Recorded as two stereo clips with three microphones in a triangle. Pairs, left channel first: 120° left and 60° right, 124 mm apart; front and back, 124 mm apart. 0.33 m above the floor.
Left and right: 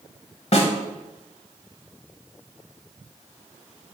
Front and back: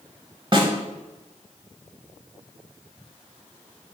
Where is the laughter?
No laughter in this recording.